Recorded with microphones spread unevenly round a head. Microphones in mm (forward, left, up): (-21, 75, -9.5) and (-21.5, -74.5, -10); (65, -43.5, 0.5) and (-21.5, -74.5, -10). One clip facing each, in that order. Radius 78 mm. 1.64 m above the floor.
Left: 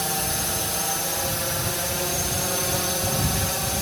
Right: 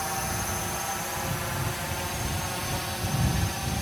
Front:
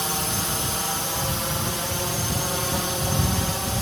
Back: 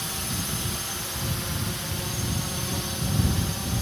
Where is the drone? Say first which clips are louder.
Left 3 dB, front 6 dB; 55° left; by 3.8 s 70° left.